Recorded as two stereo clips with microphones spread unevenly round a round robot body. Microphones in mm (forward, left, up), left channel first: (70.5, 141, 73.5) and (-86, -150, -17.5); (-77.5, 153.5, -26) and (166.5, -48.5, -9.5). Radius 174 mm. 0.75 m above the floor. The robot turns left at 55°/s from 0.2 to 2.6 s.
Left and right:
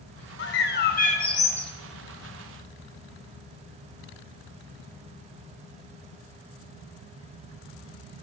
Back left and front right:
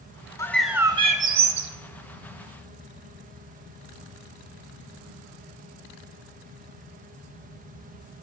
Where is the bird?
60° left, 0.7 m; by 1.7 s 15° right, 0.7 m.